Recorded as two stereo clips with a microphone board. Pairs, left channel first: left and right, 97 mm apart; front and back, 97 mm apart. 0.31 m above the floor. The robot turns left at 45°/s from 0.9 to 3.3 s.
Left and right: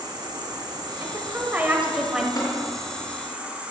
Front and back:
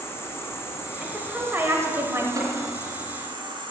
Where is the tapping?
140° left, 3 m; by 2.5 s 135° left, 3 m.